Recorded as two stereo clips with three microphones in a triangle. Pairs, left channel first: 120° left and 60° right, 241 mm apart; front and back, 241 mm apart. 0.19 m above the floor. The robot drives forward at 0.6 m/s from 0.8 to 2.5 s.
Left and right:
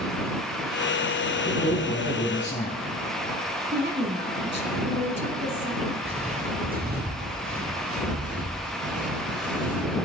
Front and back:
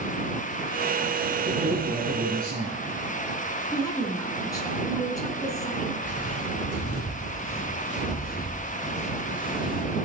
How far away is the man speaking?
About 1.8 m.